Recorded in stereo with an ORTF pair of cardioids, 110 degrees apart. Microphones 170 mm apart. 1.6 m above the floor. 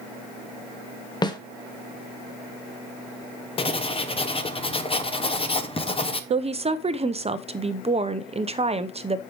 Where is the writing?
35° left, 0.9 m.